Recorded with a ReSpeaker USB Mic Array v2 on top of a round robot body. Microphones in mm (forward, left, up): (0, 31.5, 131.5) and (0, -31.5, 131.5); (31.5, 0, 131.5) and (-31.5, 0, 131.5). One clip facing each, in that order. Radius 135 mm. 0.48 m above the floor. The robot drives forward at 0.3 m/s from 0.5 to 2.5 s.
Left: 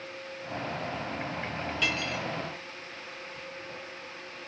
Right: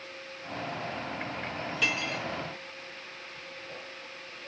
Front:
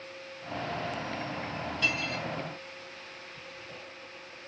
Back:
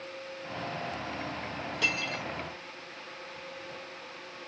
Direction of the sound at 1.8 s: 175° right.